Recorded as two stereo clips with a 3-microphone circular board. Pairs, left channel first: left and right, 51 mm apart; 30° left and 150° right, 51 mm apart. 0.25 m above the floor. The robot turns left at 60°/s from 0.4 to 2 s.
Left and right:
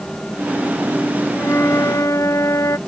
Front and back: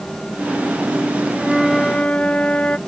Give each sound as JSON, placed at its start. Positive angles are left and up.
{"t": 1.4, "sound": "a flute", "azimuth_deg": 135}